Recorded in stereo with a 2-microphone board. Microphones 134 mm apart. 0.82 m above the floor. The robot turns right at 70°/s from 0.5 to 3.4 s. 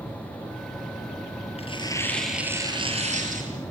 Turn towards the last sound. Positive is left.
turn(degrees=-100)